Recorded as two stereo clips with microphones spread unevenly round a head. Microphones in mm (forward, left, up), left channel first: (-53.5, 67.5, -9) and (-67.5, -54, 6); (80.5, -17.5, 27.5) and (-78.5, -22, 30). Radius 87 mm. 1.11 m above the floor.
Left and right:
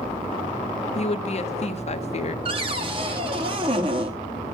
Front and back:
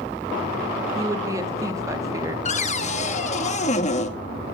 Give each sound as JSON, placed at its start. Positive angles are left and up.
{"t": 0.9, "sound": "a woman speaking", "azimuth_deg": 110, "distance_m": 1.0}
{"t": 2.5, "sound": "a cupboard door", "azimuth_deg": -45, "distance_m": 0.9}